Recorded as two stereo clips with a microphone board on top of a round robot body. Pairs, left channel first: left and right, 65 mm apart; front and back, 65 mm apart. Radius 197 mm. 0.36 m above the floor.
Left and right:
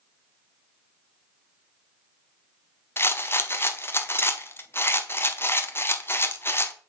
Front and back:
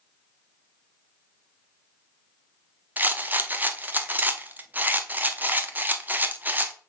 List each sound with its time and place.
3.0 s a rattle: 130° left, 1.0 m